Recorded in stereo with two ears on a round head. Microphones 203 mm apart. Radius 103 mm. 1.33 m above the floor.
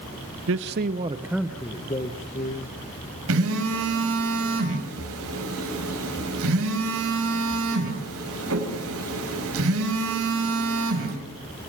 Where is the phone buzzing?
65° right (ahead or behind), 5.5 m.